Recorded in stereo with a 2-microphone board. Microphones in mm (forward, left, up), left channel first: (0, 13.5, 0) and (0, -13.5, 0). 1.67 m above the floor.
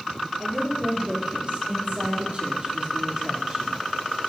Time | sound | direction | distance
0.4 | a woman speaking | 65° right (ahead or behind) | 4 m